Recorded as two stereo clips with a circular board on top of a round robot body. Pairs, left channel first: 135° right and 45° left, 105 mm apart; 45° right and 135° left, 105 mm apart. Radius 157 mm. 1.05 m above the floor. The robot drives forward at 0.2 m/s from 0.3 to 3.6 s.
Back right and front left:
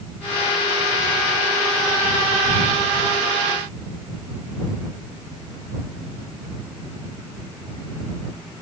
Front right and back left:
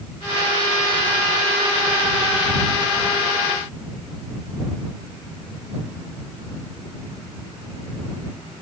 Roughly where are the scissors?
I don't hear scissors.